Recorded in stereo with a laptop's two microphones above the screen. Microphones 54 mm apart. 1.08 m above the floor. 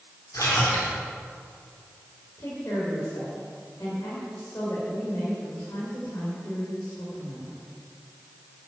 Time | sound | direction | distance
0.3 | a splash | 75° left (ahead or behind) | 4 m
2.4 | a woman speaking | 75° left (ahead or behind) | 4.5 m